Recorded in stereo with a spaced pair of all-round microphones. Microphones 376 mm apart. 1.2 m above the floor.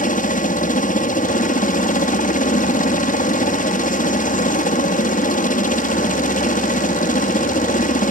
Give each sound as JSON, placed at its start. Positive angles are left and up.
{"t": 0.0, "sound": "a helicopter", "side_deg": 20}